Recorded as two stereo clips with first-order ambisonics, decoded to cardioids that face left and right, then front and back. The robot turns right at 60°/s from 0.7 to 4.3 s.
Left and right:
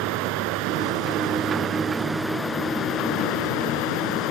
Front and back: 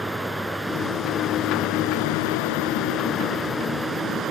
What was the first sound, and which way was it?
Running water, 95° right.